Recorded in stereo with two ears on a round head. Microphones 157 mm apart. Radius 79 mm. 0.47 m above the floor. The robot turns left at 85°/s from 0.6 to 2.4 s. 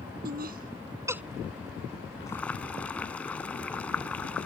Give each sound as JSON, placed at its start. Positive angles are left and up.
{"t": 0.2, "sound": "laughter", "side_deg": -60}
{"t": 2.3, "sound": "boiling", "side_deg": 20}